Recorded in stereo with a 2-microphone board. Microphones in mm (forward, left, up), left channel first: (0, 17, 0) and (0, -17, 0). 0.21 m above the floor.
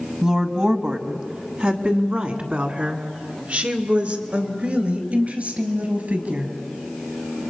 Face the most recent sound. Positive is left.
turn(degrees=-55)  # may be behind; listen again after turning